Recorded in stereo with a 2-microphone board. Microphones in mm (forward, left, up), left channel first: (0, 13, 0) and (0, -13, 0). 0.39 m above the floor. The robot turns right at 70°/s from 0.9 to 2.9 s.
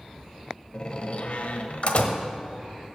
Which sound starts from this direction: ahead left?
A door slam, at 0.7 s.